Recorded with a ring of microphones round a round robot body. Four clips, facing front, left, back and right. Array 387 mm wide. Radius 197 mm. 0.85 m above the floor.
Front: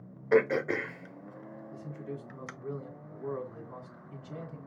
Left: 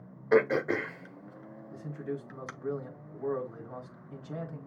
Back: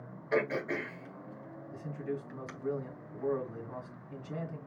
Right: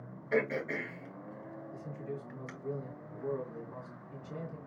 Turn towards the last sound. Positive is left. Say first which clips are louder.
# left 6 dB, back 4 dB
turn(degrees=125)